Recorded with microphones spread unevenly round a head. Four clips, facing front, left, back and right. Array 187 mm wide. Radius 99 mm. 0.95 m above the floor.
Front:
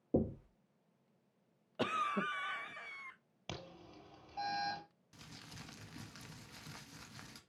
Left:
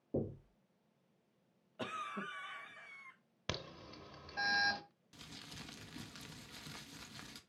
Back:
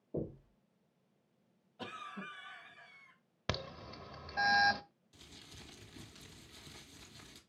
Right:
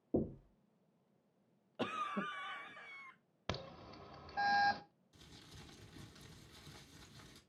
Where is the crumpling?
60° left, 1.6 m.